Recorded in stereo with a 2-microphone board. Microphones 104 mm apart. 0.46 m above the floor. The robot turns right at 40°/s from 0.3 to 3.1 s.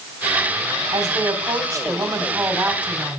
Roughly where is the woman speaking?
Right.